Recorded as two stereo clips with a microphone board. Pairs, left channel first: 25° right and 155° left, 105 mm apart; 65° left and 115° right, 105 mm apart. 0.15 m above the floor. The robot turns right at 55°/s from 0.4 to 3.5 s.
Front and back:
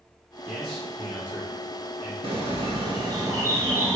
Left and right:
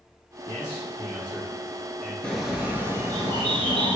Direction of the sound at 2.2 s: 150° left.